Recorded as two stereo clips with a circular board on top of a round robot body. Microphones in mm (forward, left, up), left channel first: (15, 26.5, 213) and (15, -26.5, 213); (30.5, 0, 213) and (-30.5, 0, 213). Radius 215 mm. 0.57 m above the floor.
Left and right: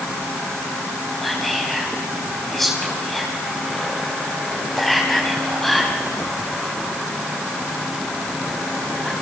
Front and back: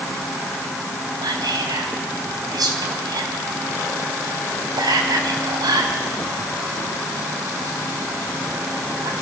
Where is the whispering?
175° left, 4.5 m.